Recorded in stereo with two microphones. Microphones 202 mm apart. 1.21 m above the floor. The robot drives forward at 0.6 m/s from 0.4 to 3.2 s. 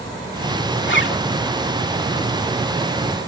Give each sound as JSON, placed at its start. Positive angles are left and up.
{"t": 0.8, "sound": "a zipper", "side_deg": 70}